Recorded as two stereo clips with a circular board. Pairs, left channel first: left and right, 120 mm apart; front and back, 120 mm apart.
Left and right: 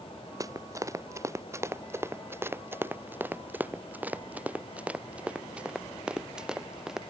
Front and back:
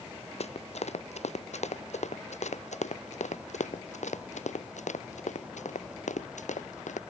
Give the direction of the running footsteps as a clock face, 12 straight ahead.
1 o'clock.